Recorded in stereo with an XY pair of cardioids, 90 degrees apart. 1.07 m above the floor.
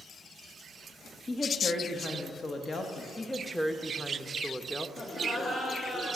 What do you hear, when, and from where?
1.3 s a woman speaking: 45° left, 1.4 m
3.2 s a woman speaking: straight ahead, 1.0 m
5.0 s laughter: 40° left, 1.9 m